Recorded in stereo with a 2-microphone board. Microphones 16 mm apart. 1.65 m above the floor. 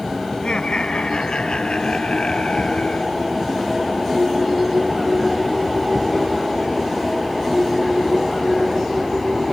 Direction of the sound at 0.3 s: 85° left.